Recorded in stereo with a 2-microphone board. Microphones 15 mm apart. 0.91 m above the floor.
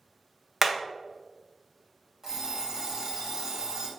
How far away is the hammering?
About 0.7 m.